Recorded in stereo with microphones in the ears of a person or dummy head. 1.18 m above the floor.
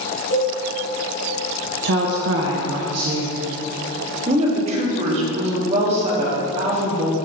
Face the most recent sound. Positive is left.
turn(degrees=-40)  # may be behind; listen again after turning